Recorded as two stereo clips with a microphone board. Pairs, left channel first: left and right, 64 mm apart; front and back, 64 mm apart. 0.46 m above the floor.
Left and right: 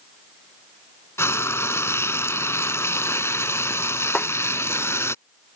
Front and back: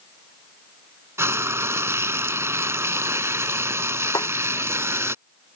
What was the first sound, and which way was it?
Frying, 135° left.